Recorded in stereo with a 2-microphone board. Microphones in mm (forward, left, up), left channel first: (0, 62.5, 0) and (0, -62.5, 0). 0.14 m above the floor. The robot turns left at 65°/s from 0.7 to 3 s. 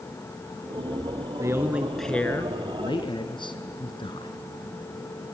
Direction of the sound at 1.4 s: 145° right.